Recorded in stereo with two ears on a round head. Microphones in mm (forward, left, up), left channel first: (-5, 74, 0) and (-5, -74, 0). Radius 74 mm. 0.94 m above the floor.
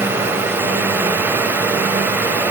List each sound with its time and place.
Only background noise.